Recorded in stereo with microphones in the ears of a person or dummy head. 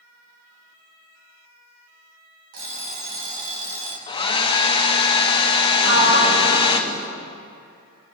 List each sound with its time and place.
2.5 s an alarm clock: 80° right, 4 m
4.1 s a hair dryer: 30° left (ahead or behind), 0.8 m
5.8 s a sliding door: 80° right, 6 m